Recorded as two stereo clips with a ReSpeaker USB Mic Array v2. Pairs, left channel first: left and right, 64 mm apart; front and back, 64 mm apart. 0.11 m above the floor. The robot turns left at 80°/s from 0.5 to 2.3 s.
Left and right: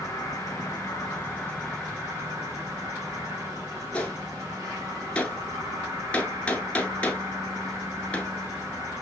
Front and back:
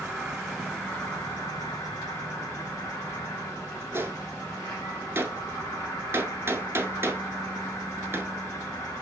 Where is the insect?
95° left, 3.5 m; by 9.0 s 50° right, 3.5 m.